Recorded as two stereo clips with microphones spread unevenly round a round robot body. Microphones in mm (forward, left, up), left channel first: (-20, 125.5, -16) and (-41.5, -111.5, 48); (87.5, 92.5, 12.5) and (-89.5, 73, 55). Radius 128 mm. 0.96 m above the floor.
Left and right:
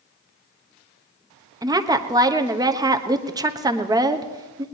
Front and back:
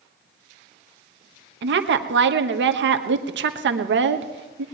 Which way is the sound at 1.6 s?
175° right.